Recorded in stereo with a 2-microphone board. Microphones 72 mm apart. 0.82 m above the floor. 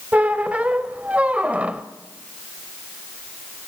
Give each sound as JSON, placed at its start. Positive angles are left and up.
{"t": 0.1, "sound": "a squeak", "side_deg": -15, "distance_m": 0.9}